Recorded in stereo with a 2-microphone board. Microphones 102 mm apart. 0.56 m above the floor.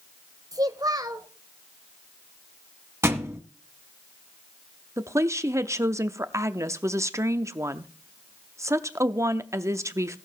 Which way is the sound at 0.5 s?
35° right (ahead or behind).